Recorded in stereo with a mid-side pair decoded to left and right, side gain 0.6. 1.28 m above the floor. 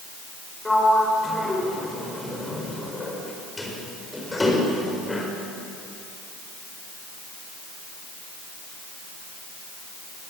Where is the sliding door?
15° left, 5 m.